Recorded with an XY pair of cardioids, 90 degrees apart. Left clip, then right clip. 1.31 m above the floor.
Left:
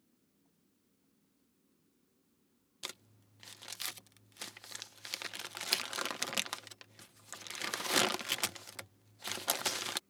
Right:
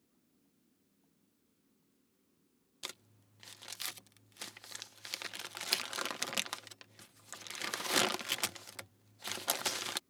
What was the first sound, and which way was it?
Crumpling, 5° left.